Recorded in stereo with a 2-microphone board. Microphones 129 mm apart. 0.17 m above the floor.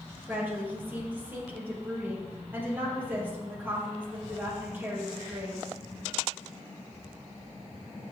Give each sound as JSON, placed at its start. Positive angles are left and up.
{"t": 0.3, "sound": "a woman speaking", "side_deg": -15, "distance_m": 4.0}